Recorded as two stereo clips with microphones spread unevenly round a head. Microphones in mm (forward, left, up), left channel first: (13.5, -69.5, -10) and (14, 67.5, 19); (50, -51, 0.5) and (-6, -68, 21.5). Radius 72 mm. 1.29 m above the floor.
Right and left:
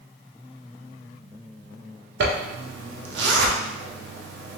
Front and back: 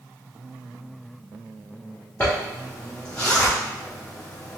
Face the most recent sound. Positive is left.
turn(degrees=95)